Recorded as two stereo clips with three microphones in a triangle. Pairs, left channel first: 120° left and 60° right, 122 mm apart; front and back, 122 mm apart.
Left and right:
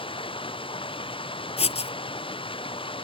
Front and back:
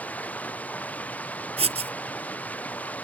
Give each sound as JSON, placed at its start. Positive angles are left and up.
{"t": 0.0, "sound": "running water", "azimuth_deg": 80}
{"t": 1.6, "sound": "writing", "azimuth_deg": 150}